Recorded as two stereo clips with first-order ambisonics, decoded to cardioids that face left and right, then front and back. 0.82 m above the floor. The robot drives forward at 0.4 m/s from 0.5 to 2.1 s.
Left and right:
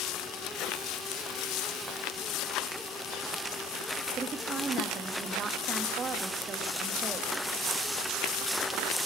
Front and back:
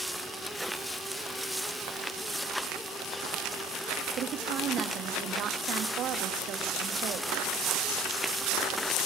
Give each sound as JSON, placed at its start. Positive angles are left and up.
{"t": 4.2, "sound": "a woman speaking", "azimuth_deg": -150, "distance_m": 1.5}